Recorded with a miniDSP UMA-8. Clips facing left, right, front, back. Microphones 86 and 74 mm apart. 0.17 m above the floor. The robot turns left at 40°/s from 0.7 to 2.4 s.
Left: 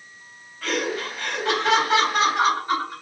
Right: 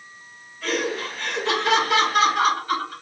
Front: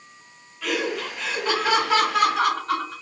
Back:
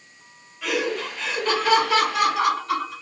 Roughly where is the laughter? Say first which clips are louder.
Even, back 1 dB; left.